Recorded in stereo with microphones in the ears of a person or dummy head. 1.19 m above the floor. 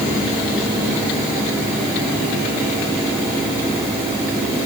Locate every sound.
Only background noise.